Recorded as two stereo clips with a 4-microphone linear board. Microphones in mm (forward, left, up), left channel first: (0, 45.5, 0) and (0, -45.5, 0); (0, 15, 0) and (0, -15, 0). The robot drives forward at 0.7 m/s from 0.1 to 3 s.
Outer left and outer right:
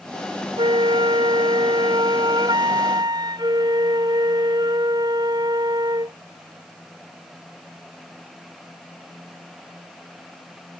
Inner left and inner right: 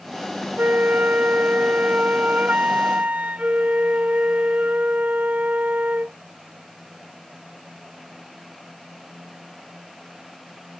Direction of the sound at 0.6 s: 70° right (ahead or behind).